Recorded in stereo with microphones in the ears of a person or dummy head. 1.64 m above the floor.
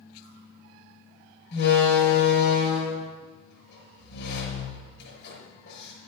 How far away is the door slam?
About 6.5 m.